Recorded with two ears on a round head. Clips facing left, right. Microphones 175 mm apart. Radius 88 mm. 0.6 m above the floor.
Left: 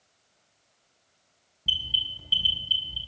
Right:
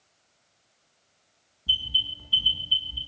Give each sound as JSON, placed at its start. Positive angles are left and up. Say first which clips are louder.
{"t": 1.7, "sound": "an alarm", "louder": "right 1 dB", "side_deg": 75, "distance_m": 5.0}